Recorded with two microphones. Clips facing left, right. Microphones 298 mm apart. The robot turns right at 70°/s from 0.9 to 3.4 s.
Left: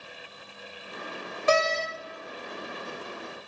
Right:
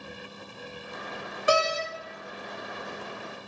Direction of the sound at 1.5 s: 15° right (ahead or behind).